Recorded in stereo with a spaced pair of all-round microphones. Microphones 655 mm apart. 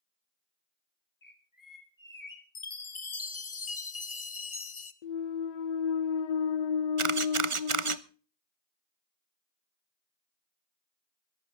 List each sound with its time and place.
1.2 s a bird: 30° left (ahead or behind), 2.5 m
2.5 s a chime: 45° left (ahead or behind), 1.1 m
5.0 s a clunk: 75° left (ahead or behind), 0.7 m
7.0 s a camera shutter: 50° right (ahead or behind), 0.8 m